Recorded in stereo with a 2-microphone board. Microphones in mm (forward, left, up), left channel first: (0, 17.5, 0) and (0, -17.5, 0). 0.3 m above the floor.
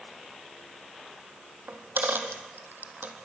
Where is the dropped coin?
80° right, 2 m.